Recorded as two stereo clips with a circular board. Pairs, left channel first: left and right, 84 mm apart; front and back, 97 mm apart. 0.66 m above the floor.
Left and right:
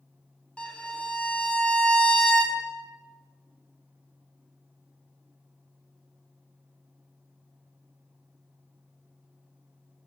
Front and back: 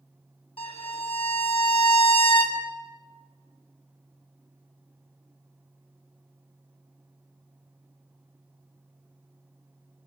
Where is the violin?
10° left, 0.6 m.